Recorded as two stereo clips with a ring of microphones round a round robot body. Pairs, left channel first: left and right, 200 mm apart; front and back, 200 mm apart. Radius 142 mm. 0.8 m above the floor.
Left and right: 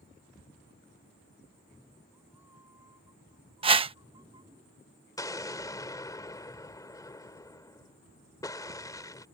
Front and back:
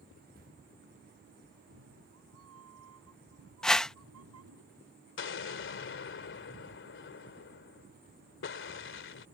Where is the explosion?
15° left.